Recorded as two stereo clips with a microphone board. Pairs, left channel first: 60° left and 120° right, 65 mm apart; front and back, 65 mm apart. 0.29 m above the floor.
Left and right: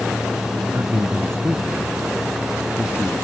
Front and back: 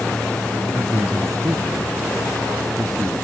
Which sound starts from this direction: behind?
A man speaking, at 0.7 s.